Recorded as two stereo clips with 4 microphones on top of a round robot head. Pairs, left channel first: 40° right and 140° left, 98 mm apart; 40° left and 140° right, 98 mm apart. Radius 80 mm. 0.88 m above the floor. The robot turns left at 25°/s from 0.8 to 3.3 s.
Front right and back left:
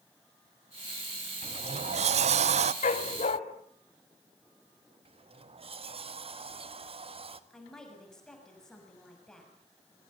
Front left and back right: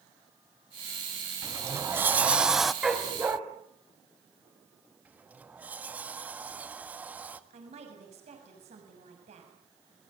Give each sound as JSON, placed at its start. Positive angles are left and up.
{"t": 1.4, "sound": "a sliding door", "azimuth_deg": 165, "distance_m": 0.7}
{"t": 2.8, "sound": "a dog barking", "azimuth_deg": -55, "distance_m": 1.8}
{"t": 5.0, "sound": "a sliding door", "azimuth_deg": 145, "distance_m": 1.7}
{"t": 7.5, "sound": "a woman speaking", "azimuth_deg": -125, "distance_m": 6.5}